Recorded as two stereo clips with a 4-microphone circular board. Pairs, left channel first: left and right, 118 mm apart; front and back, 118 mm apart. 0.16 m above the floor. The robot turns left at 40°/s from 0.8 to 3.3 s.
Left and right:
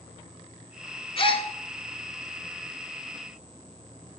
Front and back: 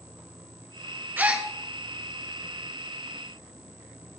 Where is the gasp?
110° left, 1.0 m; by 1.5 s 95° left, 1.0 m.